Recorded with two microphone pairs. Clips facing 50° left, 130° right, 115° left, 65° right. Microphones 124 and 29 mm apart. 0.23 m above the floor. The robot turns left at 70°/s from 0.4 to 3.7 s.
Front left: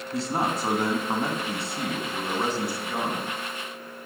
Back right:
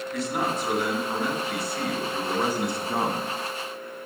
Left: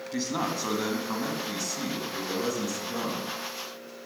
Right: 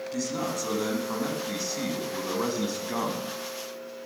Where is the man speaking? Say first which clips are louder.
Front left 1 dB, left 2 dB; 85° left, 1.7 m; by 3.3 s 120° right, 1.7 m.